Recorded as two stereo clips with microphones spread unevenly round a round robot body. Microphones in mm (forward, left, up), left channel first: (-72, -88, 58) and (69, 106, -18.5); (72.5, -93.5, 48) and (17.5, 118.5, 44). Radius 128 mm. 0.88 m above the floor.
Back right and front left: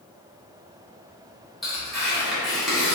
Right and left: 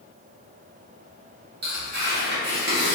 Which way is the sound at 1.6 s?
130° left.